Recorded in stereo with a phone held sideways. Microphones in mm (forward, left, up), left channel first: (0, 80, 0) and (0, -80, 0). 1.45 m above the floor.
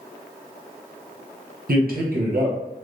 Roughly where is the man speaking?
Right.